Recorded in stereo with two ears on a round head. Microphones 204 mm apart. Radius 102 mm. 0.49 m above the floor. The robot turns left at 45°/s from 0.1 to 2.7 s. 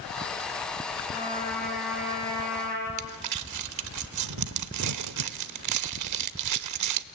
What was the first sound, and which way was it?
A trumpet, 30° left.